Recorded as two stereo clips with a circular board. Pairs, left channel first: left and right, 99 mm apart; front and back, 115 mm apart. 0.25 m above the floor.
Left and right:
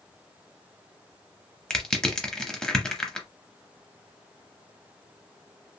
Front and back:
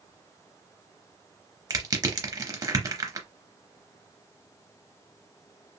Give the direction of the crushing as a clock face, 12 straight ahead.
6 o'clock.